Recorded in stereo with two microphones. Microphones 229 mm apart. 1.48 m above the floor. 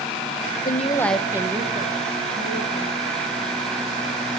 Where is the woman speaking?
50° left (ahead or behind), 0.8 m; by 3.1 s 35° right (ahead or behind), 3.5 m.